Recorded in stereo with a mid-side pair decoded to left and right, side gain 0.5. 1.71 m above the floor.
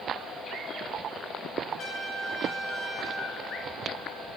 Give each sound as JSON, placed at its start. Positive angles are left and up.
{"t": 1.8, "sound": "a trumpet", "azimuth_deg": 60, "distance_m": 3.0}